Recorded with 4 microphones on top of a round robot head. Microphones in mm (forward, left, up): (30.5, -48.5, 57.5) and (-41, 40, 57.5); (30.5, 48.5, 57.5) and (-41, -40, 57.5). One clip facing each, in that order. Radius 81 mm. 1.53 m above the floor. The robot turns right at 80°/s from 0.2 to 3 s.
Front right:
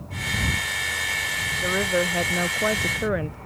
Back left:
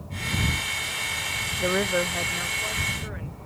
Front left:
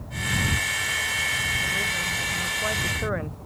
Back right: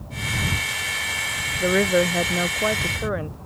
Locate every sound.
1.6 s a woman speaking: 160° right; by 3.4 s 50° right